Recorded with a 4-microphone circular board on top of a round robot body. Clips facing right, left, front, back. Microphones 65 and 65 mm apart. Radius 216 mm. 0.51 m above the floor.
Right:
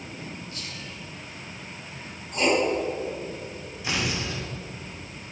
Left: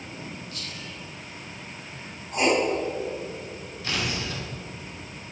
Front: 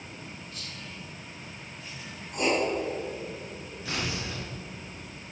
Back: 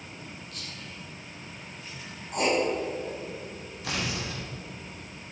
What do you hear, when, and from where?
0.5 s whispering: 155° right, 4 m
2.3 s writing: 155° left, 4.5 m
3.8 s tearing paper: 165° right, 3 m